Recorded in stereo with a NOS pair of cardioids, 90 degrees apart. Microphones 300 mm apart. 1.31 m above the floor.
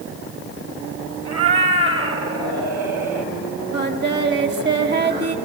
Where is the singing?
35° right, 2 m.